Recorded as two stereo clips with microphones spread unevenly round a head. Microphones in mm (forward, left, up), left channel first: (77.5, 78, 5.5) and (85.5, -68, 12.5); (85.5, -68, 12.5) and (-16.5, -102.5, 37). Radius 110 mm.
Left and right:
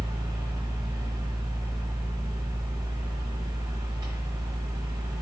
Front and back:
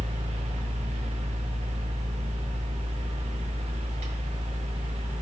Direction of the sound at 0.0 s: 160° right.